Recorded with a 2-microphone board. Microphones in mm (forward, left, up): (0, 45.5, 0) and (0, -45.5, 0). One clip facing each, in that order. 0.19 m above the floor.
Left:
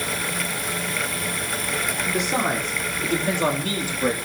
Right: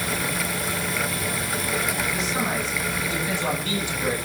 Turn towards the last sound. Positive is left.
turn(degrees=40)  # may be behind; listen again after turning